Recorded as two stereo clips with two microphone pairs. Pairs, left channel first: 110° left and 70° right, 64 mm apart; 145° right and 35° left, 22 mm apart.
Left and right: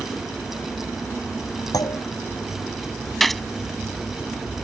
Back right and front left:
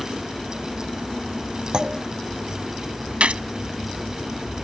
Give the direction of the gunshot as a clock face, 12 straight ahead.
11 o'clock.